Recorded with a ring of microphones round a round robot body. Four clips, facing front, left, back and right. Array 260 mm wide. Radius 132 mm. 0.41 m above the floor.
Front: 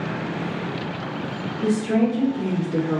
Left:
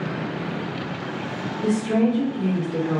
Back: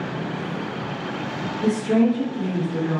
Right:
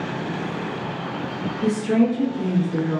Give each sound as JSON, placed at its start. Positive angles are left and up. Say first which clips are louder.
{"t": 1.6, "sound": "a woman speaking", "louder": "right 1 dB, back 1 dB", "azimuth_deg": -75, "distance_m": 1.5}